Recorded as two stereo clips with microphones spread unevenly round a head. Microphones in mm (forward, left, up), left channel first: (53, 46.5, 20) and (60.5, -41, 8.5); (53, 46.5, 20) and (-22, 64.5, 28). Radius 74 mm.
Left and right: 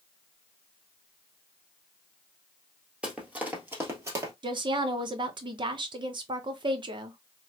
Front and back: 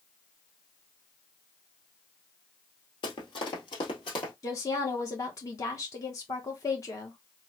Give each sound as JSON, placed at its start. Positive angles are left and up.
{"t": 3.0, "sound": "running footsteps", "azimuth_deg": -5, "distance_m": 1.6}
{"t": 4.4, "sound": "a woman speaking", "azimuth_deg": -65, "distance_m": 0.8}